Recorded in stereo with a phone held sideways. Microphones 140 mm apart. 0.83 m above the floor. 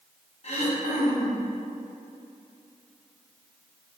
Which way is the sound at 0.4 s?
50° left (ahead or behind).